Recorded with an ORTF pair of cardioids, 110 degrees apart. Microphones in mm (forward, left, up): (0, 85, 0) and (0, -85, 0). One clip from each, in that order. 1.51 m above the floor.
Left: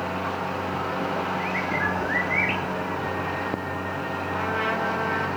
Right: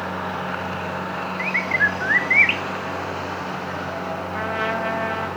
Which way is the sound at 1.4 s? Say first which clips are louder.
Right 10 dB; 55° right.